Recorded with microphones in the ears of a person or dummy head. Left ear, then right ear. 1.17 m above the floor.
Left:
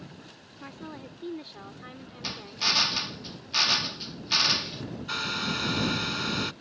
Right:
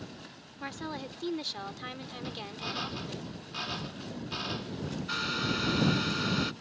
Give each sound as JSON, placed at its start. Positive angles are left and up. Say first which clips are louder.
{"t": 0.6, "sound": "a woman speaking", "louder": "right 4 dB", "side_deg": -35}
{"t": 2.2, "sound": "a drill", "louder": "left 12 dB", "side_deg": 70}
{"t": 5.1, "sound": "a hair dryer", "louder": "left 2 dB", "side_deg": 20}